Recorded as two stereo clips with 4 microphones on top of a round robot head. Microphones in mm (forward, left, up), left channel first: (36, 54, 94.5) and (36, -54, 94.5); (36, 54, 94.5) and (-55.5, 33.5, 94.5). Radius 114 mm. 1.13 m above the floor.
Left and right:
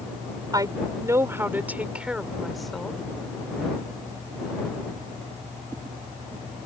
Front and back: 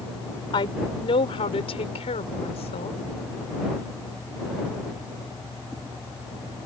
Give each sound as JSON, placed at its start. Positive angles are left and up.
{"t": 0.5, "sound": "a woman speaking", "azimuth_deg": -35}